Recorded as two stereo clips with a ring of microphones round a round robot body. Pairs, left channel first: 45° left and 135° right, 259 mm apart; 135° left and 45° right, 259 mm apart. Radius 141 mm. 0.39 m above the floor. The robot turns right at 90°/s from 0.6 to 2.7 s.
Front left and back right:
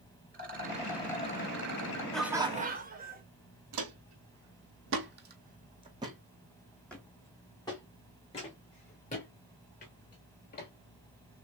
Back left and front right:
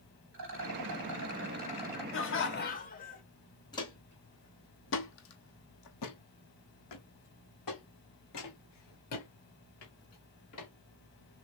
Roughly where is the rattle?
Right.